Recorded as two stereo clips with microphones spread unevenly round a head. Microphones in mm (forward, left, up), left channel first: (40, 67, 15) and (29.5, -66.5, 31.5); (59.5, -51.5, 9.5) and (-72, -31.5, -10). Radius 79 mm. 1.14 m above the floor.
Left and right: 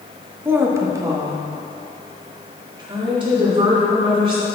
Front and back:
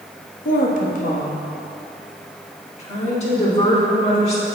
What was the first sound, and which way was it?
A woman speaking, 20° right.